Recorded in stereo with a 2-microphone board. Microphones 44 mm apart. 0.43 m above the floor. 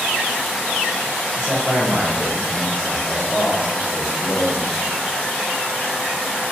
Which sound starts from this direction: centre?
A man speaking, at 1.4 s.